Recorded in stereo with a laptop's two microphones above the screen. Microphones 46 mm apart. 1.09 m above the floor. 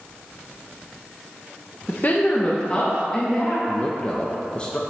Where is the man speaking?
25° left (ahead or behind), 1.0 m.